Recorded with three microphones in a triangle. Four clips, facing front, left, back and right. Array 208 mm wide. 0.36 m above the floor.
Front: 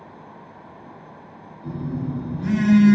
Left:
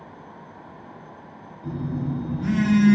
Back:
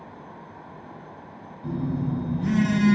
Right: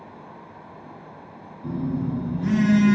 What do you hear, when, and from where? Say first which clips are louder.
1.6 s a phone buzzing: right 2 dB, back 1 dB; 85° right, 0.8 m